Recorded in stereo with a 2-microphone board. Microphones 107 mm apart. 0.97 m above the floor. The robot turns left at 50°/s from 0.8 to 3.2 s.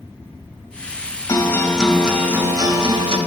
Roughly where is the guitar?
Ahead left.